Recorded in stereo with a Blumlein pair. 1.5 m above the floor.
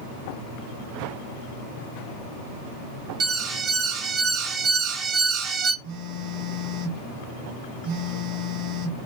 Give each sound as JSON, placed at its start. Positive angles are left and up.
{"t": 3.2, "sound": "an alarm", "azimuth_deg": -25, "distance_m": 0.6}
{"t": 5.8, "sound": "a phone buzzing", "azimuth_deg": -45, "distance_m": 1.2}